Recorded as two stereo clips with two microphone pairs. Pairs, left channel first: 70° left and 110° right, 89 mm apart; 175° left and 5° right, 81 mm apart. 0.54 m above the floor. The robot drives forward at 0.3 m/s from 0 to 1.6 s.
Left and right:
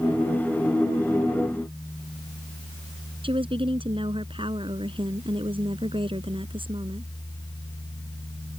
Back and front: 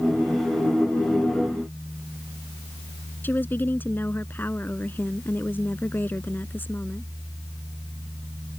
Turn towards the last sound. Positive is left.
turn(degrees=-120)